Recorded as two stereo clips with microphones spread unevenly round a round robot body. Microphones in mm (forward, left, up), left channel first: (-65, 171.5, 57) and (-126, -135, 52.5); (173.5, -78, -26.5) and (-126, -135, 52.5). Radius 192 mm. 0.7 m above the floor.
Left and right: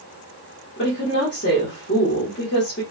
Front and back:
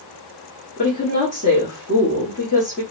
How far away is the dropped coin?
No dropped coin in this recording.